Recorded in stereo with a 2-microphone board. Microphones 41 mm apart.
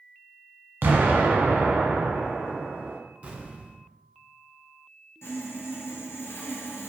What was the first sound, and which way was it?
An explosion, 55° right (ahead or behind).